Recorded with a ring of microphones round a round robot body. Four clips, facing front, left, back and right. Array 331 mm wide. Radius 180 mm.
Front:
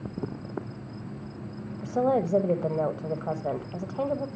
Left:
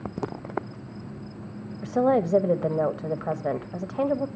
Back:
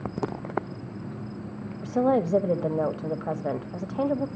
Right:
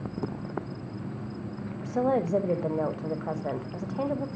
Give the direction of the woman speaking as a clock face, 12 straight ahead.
8 o'clock.